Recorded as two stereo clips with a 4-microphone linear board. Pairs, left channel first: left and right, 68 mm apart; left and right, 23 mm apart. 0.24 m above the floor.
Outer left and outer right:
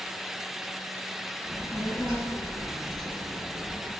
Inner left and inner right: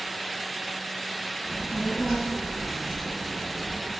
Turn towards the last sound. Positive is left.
turn(degrees=-15)  # may be behind; listen again after turning